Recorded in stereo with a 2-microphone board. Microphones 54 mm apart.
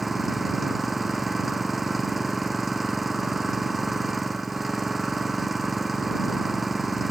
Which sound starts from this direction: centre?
An engine running, at 0.0 s.